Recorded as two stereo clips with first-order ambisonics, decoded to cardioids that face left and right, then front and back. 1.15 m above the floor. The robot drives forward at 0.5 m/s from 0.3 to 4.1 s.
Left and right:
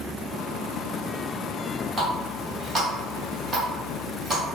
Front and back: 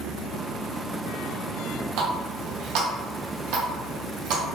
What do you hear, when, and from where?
2.0 s a running tap: 165° right, 1.3 m; by 4.4 s 170° right, 2.5 m